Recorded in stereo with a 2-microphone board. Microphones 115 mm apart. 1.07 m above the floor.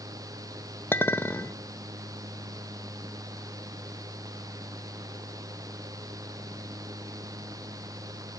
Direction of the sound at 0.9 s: 20° left (ahead or behind).